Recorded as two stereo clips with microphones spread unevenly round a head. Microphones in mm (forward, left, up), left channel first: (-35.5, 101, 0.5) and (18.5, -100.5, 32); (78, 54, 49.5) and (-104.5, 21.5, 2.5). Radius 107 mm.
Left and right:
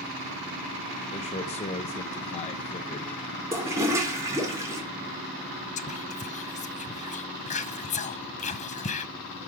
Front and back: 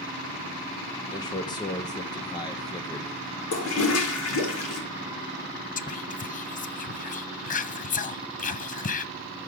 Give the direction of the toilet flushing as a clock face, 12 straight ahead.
12 o'clock.